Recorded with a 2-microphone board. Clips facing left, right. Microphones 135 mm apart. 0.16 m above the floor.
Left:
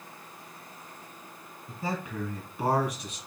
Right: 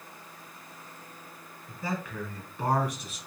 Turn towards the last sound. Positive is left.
turn(degrees=-5)  # may be behind; listen again after turning